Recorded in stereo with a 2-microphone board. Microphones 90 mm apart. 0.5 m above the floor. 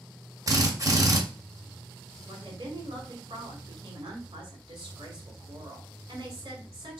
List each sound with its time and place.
0.5 s a drill: 40° right (ahead or behind), 0.8 m
2.3 s a woman speaking: 55° right (ahead or behind), 1.5 m